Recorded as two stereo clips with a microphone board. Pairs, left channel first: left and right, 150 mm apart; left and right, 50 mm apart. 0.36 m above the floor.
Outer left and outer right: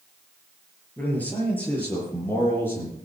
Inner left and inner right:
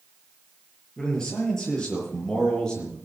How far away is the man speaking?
About 6.5 m.